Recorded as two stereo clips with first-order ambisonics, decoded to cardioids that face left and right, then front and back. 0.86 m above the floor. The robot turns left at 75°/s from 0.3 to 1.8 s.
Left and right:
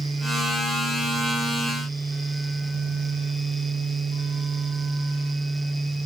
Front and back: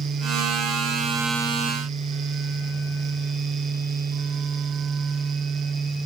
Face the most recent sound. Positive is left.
No sound to turn to.